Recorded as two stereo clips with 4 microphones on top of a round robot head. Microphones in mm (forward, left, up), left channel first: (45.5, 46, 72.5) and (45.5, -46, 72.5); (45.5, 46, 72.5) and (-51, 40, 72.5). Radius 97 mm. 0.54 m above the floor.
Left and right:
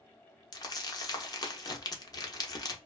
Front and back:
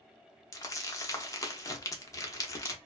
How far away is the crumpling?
About 0.9 m.